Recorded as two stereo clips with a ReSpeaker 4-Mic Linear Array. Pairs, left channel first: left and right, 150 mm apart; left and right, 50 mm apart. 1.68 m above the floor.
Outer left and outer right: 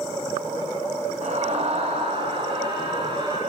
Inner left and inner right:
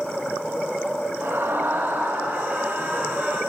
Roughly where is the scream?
Right.